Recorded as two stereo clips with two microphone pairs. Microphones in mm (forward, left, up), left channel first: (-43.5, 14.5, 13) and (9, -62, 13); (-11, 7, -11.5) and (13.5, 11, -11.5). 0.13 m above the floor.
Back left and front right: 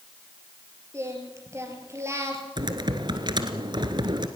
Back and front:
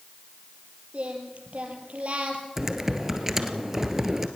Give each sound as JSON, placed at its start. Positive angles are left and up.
{"t": 0.9, "sound": "singing", "azimuth_deg": 0, "distance_m": 3.5}
{"t": 2.6, "sound": "typing on a keyboard", "azimuth_deg": -60, "distance_m": 1.6}